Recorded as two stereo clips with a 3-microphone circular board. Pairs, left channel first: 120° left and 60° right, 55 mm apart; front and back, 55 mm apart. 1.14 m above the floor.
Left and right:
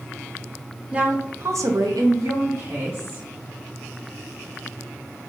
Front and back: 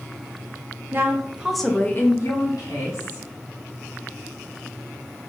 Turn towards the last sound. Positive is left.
turn(degrees=-10)